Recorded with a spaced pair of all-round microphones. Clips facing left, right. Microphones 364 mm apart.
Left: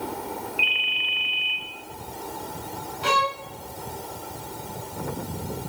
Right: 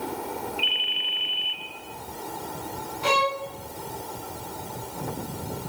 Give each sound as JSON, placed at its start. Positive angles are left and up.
{"t": 0.6, "sound": "a ringtone", "side_deg": 10, "distance_m": 3.0}
{"t": 3.0, "sound": "a violin", "side_deg": 20, "distance_m": 1.5}